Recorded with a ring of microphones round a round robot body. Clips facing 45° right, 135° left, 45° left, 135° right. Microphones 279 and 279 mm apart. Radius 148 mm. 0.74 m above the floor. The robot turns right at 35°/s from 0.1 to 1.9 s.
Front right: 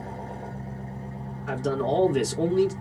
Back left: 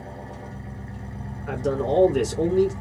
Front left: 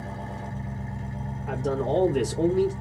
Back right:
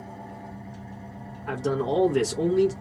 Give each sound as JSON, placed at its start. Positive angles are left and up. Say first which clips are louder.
{"t": 0.0, "sound": "an engine running", "louder": "front right 1 dB, front left 4 dB", "azimuth_deg": 40, "distance_m": 0.9}
{"t": 1.5, "sound": "a man speaking", "louder": "back left 2 dB, back right 1 dB", "azimuth_deg": -130, "distance_m": 1.1}